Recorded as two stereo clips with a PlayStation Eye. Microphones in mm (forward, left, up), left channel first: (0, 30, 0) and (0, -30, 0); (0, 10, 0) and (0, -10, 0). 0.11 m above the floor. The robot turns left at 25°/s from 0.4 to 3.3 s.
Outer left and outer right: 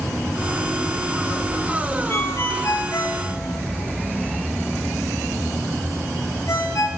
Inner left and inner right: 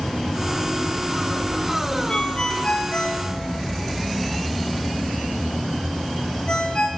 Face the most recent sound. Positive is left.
turn(degrees=55)  # may be behind; listen again after turning